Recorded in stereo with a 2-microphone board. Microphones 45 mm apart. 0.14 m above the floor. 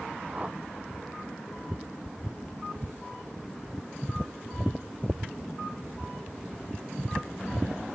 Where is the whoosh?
25° right (ahead or behind).